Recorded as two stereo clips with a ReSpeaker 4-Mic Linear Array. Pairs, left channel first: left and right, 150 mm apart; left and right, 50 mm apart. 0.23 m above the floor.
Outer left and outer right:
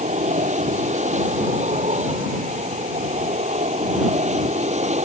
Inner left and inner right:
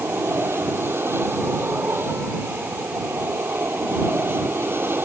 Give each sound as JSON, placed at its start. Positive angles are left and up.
{"t": 0.0, "sound": "an aircraft", "side_deg": -50}